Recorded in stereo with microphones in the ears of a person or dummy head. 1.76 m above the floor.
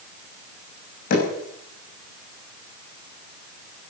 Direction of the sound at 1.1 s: 55° left (ahead or behind).